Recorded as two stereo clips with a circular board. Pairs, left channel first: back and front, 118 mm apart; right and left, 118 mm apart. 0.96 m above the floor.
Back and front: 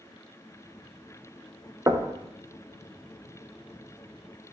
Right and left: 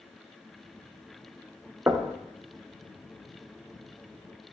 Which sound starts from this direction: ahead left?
Knocking, at 1.9 s.